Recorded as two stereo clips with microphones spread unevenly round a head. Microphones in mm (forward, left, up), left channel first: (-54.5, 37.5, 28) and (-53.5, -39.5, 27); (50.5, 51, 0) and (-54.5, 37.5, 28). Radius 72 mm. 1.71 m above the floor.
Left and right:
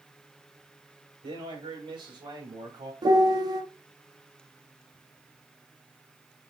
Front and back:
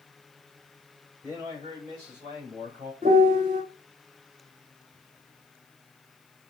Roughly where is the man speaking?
Right.